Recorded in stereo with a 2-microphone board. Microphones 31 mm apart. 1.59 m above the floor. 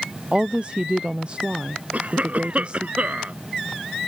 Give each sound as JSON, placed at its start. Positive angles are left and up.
{"t": 0.3, "sound": "a woman speaking", "side_deg": -40}
{"t": 1.9, "sound": "a cough", "side_deg": -50}